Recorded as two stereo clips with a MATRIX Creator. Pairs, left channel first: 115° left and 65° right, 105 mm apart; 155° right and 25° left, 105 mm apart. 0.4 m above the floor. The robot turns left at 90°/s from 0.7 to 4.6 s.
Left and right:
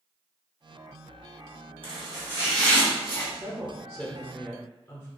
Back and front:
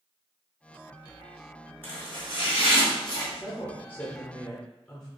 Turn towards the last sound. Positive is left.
turn(degrees=135)